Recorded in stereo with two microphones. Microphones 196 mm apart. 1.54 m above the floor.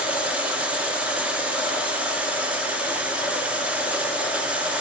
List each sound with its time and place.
0.0 s running water: 5° right (ahead or behind), 0.9 m